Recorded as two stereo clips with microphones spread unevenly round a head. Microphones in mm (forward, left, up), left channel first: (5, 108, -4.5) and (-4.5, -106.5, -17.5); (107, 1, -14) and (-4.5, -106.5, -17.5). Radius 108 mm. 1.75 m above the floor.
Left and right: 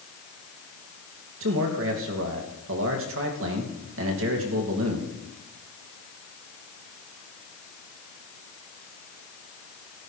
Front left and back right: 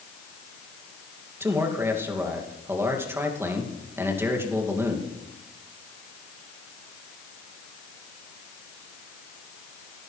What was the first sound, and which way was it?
A man speaking, 60° right.